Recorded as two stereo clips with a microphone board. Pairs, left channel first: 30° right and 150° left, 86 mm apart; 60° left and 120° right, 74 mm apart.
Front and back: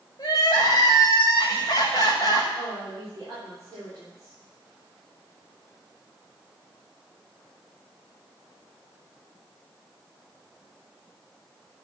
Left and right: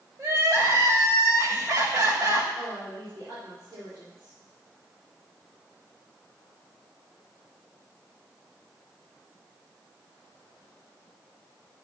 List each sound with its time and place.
0.2 s crying: 80° right, 5.5 m
2.6 s a woman speaking: 160° right, 7.5 m